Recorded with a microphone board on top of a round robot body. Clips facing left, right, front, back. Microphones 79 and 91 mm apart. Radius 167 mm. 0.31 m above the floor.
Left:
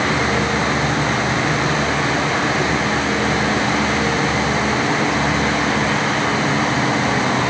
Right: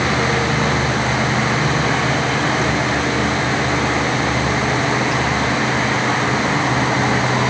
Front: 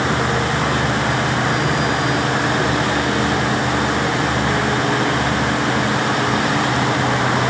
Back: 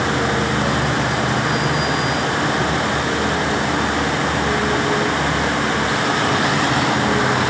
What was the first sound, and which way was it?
Only background noise.